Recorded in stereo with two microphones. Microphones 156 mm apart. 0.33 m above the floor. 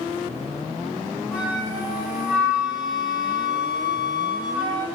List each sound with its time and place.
1.3 s a flute: 5° right (ahead or behind), 0.8 m